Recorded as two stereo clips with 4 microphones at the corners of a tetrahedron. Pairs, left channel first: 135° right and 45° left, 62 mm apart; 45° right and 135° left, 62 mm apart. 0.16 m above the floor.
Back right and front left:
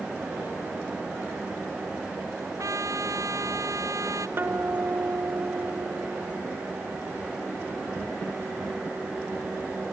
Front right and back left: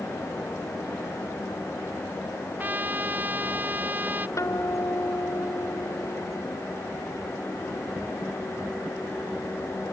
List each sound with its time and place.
2.6 s a trumpet: 75° left
4.4 s a guitar: 5° right